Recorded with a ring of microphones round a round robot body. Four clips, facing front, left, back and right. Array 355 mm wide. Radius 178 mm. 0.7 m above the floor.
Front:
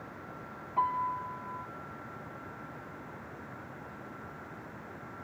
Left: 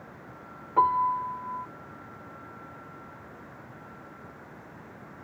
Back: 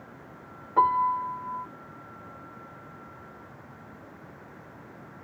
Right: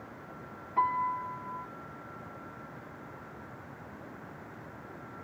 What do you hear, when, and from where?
0.8 s a piano: 140° left